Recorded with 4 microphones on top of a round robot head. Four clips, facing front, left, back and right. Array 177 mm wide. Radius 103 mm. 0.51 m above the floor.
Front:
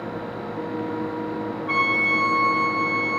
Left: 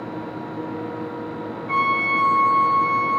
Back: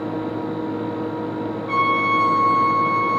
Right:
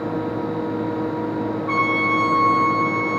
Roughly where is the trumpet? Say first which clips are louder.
Left 1 dB, back 5 dB; right.